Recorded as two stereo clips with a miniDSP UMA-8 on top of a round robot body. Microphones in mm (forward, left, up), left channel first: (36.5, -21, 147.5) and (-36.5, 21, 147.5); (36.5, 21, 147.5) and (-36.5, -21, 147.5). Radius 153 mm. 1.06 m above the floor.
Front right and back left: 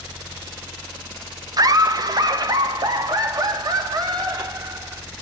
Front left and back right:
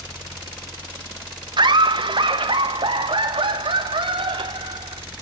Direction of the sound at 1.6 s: 170° right.